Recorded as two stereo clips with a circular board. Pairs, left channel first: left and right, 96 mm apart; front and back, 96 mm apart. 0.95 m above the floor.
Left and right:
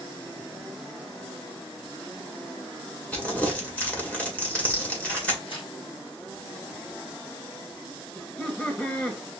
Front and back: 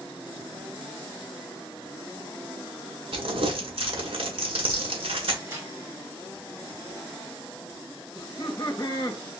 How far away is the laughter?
About 1.0 m.